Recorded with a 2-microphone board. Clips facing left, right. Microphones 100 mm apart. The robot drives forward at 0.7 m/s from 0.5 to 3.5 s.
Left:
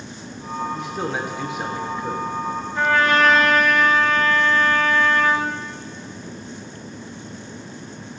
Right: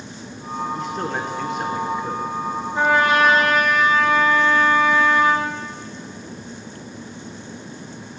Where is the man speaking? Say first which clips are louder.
Right 1 dB; 5° left (ahead or behind), 0.7 m.